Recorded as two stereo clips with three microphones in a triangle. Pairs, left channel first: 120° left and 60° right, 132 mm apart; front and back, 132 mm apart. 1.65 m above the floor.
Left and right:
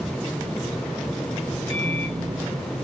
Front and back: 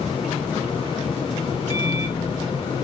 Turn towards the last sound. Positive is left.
turn(degrees=-45)